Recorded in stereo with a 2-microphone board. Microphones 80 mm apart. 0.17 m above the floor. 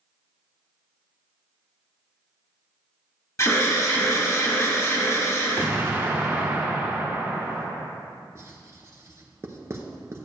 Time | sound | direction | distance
3.4 | an alarm | 40° left (ahead or behind) | 1.7 m
5.6 | an explosion | 25° right (ahead or behind) | 1.1 m
8.3 | writing | 35° right (ahead or behind) | 0.8 m